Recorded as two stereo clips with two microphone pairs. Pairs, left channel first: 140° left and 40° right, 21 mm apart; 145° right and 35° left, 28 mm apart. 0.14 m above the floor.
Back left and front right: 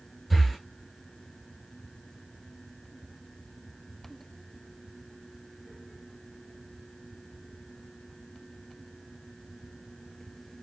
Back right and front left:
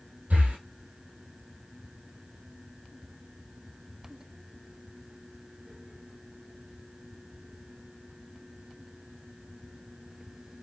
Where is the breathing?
60° left, 1.8 m.